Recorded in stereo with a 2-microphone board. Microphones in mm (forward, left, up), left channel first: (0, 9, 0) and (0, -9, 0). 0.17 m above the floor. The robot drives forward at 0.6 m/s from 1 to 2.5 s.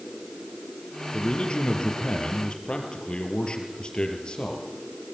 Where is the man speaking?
65° left (ahead or behind), 4.5 m; by 4.7 s 70° left (ahead or behind), 4.5 m.